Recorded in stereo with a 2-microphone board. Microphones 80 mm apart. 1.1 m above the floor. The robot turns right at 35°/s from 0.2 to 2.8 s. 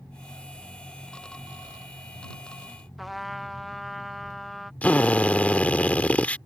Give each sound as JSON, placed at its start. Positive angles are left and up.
{"t": 3.0, "sound": "a trumpet", "side_deg": 0}
{"t": 4.8, "sound": "a drill", "side_deg": 20}